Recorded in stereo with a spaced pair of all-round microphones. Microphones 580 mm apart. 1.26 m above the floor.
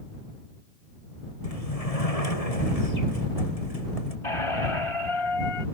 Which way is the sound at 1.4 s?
85° left.